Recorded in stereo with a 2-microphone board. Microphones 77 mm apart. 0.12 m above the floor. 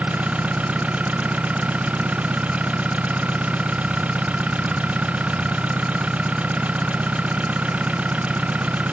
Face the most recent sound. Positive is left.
turn(degrees=-15)  # may be behind; listen again after turning